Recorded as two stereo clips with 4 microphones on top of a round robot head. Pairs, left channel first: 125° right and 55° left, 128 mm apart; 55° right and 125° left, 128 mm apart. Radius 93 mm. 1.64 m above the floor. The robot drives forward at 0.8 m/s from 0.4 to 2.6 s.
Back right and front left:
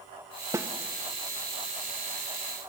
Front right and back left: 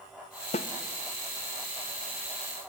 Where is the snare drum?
15° right, 1.4 m.